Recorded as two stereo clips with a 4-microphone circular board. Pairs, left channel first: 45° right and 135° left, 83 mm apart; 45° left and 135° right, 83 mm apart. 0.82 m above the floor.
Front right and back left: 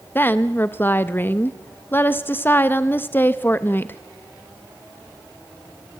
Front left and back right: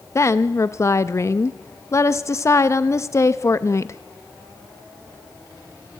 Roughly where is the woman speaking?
Ahead.